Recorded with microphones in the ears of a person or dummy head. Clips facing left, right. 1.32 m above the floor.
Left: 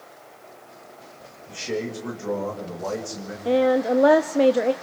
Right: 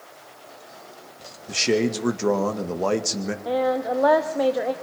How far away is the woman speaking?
About 0.6 m.